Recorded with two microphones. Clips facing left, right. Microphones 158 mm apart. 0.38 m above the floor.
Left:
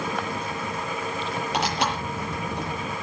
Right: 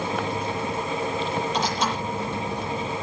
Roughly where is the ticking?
I don't hear ticking.